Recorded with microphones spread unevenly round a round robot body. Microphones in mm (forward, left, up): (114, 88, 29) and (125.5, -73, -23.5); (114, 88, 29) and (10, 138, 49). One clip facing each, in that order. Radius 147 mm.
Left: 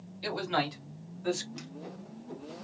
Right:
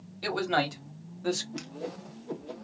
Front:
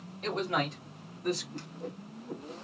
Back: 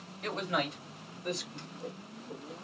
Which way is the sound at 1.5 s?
75° right.